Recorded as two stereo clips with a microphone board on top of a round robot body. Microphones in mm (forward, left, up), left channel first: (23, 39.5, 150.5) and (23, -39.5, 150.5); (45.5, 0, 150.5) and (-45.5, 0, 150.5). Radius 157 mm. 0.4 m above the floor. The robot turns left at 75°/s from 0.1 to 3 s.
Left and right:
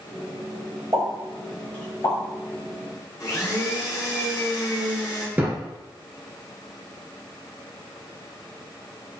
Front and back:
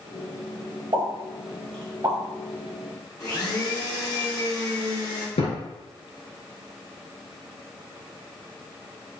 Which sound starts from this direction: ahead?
A thud, at 5.4 s.